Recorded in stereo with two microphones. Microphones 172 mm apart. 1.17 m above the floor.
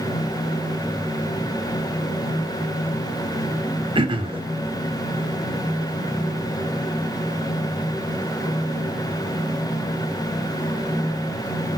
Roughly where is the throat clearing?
Right.